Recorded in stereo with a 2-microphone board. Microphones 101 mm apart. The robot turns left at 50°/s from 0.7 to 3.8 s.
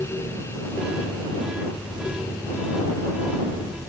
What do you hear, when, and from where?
Only background noise.